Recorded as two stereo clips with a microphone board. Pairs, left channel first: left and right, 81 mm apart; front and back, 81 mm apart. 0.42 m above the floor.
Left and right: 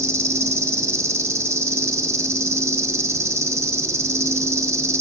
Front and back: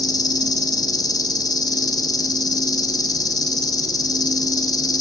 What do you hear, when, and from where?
0.0 s an insect: 35° right, 1.7 m